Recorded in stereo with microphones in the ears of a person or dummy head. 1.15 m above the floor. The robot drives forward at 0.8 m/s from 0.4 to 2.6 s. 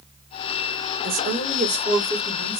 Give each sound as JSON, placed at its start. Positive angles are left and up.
{"t": 1.0, "sound": "a woman speaking", "side_deg": -55, "distance_m": 2.0}